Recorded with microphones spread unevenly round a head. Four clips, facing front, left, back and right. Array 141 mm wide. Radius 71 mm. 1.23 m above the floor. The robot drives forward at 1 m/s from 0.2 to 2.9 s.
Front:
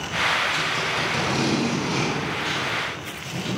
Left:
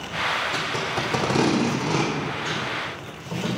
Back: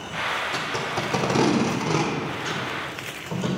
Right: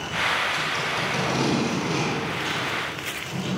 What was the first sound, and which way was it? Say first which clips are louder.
Tape being pulled: left 1 dB, front 1 dB; 125° left.